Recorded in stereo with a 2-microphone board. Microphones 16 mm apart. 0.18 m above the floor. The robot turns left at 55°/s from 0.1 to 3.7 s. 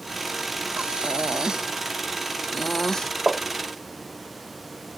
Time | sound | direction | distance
0.8 | breathing | 95° right | ?
3.3 | tapping | 40° right (ahead or behind) | ?